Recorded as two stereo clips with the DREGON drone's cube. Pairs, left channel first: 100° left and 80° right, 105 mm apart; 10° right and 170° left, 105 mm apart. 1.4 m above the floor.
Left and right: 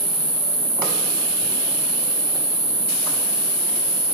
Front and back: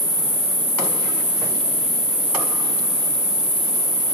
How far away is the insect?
About 1.3 m.